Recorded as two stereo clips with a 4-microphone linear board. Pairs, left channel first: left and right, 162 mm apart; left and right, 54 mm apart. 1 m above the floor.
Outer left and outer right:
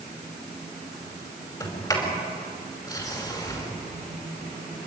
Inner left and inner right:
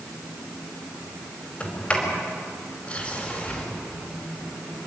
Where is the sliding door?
25° left (ahead or behind), 5 m.